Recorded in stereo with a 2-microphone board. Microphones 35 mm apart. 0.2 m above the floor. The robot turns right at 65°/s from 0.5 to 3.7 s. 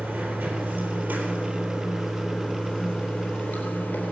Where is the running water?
100° right, 4 m; by 4.1 s 105° left, 4 m.